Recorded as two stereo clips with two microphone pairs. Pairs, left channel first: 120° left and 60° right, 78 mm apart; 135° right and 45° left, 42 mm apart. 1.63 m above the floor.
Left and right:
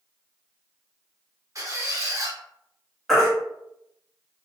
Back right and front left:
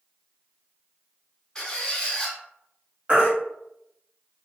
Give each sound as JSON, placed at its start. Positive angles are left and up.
{"t": 1.6, "sound": "a squeak", "azimuth_deg": -70, "distance_m": 0.8}
{"t": 3.1, "sound": "a baby crying", "azimuth_deg": 30, "distance_m": 1.1}